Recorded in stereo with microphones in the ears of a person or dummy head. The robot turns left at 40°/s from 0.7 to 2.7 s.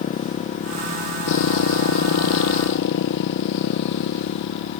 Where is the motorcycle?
145° left; by 4.8 s 65° left.